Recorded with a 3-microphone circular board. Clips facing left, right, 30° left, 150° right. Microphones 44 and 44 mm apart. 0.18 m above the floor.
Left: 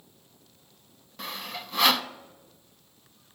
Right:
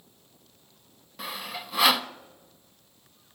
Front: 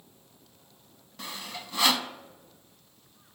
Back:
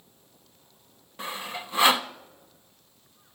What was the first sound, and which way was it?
Sawing, 170° right.